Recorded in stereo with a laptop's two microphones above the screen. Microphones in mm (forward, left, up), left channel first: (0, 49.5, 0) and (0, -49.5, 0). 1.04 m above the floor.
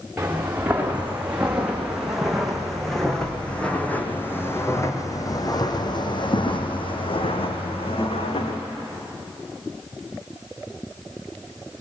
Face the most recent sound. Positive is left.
turn(degrees=80)